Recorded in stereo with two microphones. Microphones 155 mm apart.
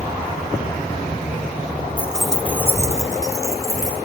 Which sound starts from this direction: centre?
Keys jangling, at 2.0 s.